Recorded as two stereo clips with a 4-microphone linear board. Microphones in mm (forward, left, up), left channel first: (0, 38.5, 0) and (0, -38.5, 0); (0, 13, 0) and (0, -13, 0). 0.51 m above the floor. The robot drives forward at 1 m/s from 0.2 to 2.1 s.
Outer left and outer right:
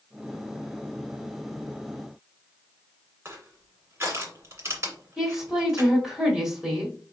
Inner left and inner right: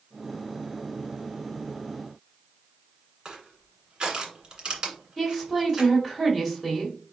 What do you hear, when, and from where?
3.2 s crushing: 35° right (ahead or behind), 1.7 m
5.2 s a woman speaking: 5° right (ahead or behind), 1.9 m